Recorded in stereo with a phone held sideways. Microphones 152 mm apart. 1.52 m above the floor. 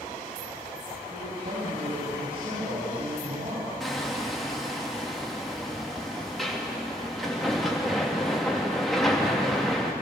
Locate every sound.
1.1 s a man speaking: 85° right, 10 m
3.8 s hammering: centre (ahead or behind), 2.5 m